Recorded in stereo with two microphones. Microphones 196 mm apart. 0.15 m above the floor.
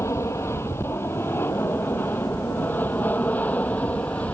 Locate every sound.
0.0 s an aircraft: 15° left (ahead or behind); by 4.3 s 10° left (ahead or behind)